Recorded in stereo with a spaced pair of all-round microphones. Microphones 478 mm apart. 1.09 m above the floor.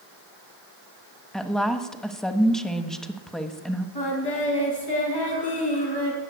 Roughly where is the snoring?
No snoring in this recording.